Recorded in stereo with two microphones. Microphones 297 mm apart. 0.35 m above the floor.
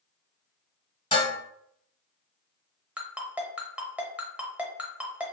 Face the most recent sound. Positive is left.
turn(degrees=-5)  # may be behind; listen again after turning